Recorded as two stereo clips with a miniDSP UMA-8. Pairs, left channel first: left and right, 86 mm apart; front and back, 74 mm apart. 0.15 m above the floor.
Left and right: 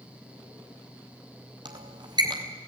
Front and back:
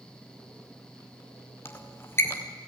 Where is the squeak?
60° right, 4 m.